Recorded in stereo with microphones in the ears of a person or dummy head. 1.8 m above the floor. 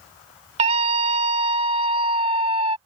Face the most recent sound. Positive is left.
turn(degrees=-30)  # may be behind; listen again after turning